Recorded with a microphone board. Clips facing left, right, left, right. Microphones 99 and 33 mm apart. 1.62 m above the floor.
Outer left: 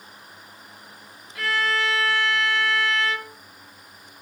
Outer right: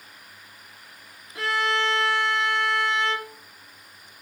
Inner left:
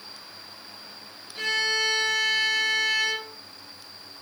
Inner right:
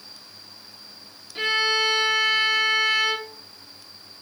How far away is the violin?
About 1.5 m.